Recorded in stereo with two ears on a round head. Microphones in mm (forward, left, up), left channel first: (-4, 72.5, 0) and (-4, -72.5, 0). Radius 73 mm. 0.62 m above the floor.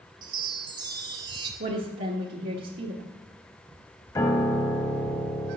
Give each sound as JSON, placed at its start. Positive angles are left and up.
{"t": 0.2, "sound": "a chime", "side_deg": -30, "distance_m": 1.2}
{"t": 1.6, "sound": "a woman speaking", "side_deg": -60, "distance_m": 1.2}
{"t": 4.2, "sound": "a piano", "side_deg": 20, "distance_m": 0.8}